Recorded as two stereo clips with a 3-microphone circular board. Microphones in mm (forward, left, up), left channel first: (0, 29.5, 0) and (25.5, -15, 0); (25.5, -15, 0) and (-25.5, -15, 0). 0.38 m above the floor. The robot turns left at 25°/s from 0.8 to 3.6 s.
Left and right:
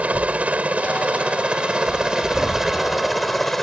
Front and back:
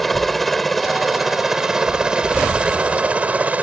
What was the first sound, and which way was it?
A helicopter, 85° right.